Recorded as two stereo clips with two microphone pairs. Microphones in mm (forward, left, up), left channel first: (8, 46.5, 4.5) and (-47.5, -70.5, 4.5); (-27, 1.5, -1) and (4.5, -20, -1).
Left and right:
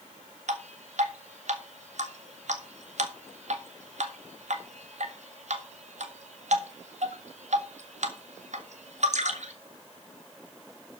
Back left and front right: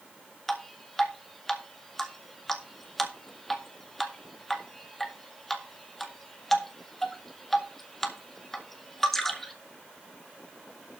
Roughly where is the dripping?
Behind right.